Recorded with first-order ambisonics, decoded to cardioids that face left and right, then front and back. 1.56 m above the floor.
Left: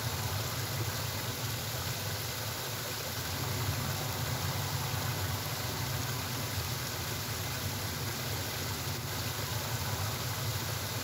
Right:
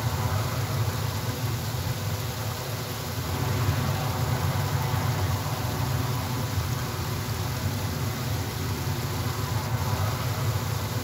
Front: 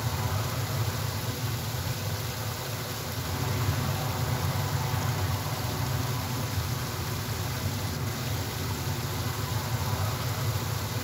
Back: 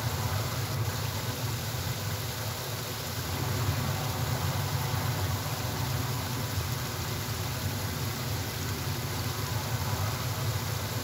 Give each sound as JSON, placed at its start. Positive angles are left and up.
{"t": 0.0, "sound": "an aircraft", "azimuth_deg": -80}